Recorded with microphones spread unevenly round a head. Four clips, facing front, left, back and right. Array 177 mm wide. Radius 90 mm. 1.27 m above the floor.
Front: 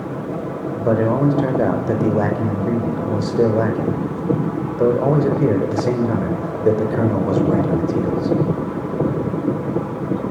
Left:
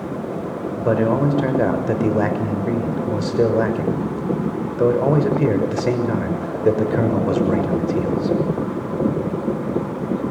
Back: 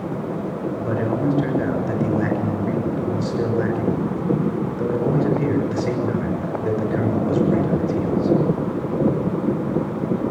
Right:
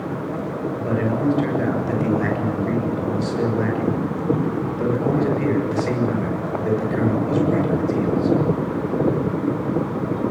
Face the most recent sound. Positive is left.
turn(degrees=40)